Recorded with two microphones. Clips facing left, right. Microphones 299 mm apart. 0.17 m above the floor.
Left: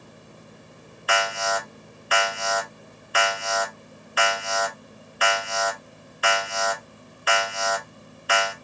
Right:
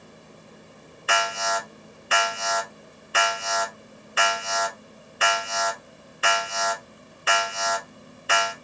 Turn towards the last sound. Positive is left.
turn(degrees=-30)  # may be behind; listen again after turning